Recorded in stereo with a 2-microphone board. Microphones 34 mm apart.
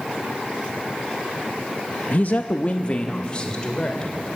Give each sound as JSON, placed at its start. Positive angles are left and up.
{"t": 2.1, "sound": "a man speaking", "side_deg": 45, "distance_m": 0.6}